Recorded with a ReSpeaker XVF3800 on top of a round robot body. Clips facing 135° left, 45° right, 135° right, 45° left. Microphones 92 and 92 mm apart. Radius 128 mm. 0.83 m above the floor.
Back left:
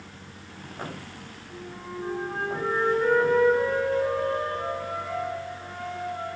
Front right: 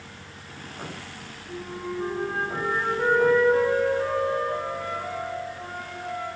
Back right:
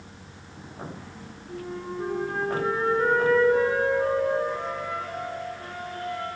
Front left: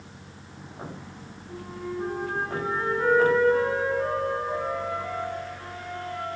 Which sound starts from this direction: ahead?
A flute, at 1.5 s.